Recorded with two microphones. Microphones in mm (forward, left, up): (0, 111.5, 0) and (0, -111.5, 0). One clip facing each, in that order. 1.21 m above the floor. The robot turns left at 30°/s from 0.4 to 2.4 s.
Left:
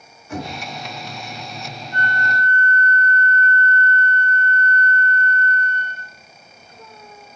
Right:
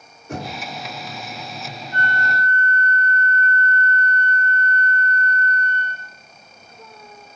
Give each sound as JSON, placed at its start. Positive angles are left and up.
{"t": 0.3, "sound": "knocking", "side_deg": -60, "distance_m": 3.5}
{"t": 1.9, "sound": "a flute", "side_deg": -20, "distance_m": 3.5}